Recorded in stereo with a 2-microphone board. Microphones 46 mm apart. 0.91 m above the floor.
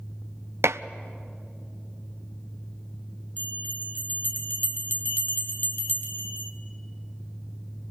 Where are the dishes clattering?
80° right, 0.5 m.